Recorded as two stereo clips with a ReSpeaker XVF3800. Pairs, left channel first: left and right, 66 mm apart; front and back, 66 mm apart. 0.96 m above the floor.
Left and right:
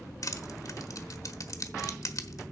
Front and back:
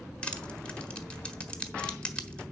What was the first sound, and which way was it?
Crushing, 75° left.